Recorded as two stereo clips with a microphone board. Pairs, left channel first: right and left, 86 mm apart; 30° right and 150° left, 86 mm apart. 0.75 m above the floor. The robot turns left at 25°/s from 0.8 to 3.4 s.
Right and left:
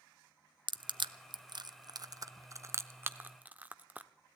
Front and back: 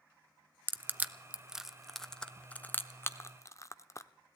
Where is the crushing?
85° left, 0.5 m; by 4.1 s 20° left, 0.5 m.